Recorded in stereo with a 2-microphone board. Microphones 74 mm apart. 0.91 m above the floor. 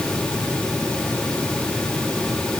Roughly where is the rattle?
No rattle in this recording.